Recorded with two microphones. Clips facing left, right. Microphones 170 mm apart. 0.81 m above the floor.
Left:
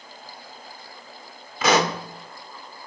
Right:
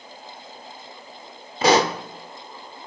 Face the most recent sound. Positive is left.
turn(degrees=-35)  # may be behind; listen again after turning